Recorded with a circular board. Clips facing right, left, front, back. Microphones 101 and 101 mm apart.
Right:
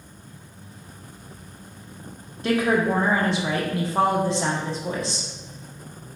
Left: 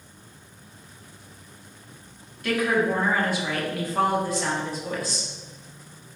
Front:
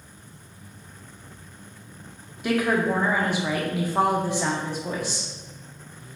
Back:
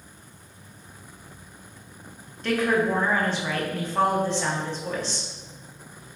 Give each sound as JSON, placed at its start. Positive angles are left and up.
{"t": 2.4, "sound": "a woman speaking", "azimuth_deg": -65, "distance_m": 0.7}